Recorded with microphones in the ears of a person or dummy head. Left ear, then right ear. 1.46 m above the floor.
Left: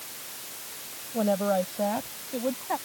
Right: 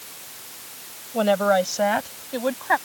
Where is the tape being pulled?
No tape being pulled in this recording.